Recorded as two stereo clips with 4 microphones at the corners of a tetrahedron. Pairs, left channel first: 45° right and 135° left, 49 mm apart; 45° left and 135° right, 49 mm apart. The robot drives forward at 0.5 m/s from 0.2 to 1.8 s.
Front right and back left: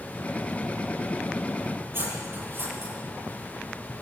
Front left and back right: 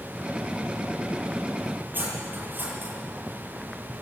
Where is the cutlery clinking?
175° left, 9.5 m.